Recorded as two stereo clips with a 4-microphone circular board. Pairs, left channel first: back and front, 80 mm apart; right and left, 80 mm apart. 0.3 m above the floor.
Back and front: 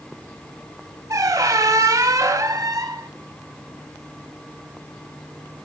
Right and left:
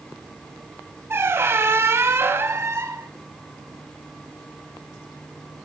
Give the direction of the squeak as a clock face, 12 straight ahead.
11 o'clock.